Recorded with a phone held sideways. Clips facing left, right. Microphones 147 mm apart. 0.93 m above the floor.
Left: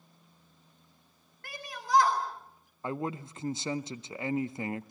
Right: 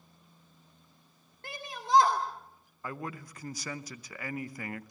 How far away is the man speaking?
About 0.6 m.